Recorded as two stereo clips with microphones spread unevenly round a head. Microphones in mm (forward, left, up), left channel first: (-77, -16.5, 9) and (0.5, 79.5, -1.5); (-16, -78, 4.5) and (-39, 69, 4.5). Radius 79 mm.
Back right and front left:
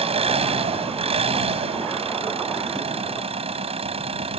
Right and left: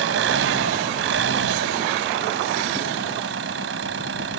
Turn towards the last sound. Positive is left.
turn(degrees=95)